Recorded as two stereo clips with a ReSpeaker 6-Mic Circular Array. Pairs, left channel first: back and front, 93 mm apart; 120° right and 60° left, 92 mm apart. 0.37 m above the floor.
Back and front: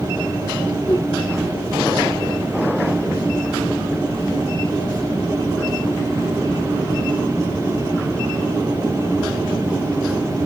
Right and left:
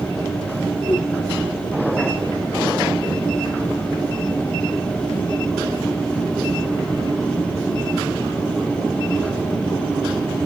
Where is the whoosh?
135° right, 3.5 m.